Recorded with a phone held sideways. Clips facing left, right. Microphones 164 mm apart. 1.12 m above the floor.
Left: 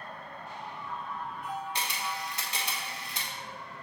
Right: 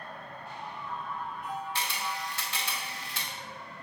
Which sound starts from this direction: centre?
A camera shutter, at 1.8 s.